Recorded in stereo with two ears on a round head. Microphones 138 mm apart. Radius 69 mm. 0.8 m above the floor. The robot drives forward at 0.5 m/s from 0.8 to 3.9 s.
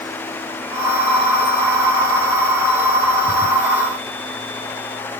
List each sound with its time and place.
Only background noise.